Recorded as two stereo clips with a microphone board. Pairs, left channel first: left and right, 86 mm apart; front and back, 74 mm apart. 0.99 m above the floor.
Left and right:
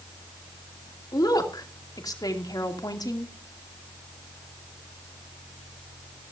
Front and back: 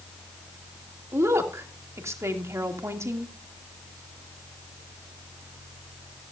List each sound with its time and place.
1.1 s a woman speaking: 130° left, 2.5 m